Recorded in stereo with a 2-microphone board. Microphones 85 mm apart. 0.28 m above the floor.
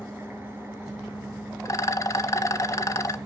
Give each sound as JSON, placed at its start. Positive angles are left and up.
{"t": 0.0, "sound": "an engine running", "side_deg": -25, "distance_m": 1.3}
{"t": 1.6, "sound": "a rattle", "side_deg": 40, "distance_m": 0.6}